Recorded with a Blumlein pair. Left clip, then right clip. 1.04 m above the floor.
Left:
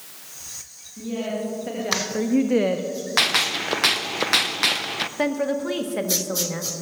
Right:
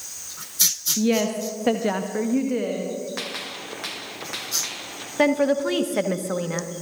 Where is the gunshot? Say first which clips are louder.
Left 11 dB; 55° left, 0.7 m.